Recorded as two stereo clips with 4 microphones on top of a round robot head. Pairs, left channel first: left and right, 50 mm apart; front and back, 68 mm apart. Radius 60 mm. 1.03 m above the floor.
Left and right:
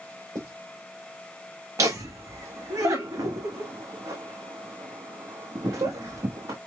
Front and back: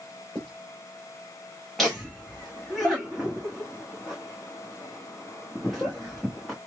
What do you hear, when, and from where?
0.3 s writing: 85° right, 2.5 m
1.8 s laughter: 85° right, 1.0 m